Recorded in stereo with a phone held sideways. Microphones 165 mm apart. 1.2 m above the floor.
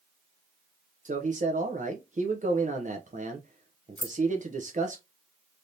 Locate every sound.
1.1 s a man speaking: 50° right (ahead or behind), 0.7 m
4.0 s keys jangling: 45° left (ahead or behind), 0.9 m